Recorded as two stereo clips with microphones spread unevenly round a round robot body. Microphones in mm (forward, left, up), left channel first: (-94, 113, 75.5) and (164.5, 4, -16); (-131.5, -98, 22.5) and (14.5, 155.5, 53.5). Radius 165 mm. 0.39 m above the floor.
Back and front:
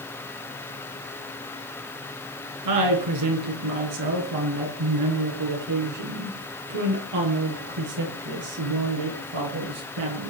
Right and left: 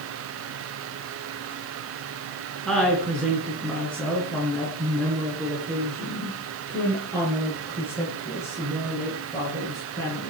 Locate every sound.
2.6 s a woman speaking: 30° right, 6 m; by 10.3 s 40° right, 11.5 m